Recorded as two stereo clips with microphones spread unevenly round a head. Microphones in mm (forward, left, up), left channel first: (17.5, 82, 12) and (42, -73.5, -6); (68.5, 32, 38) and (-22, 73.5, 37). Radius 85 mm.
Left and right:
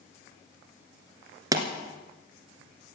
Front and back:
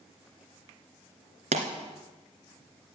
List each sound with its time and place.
1.5 s a pop: 155° right, 2 m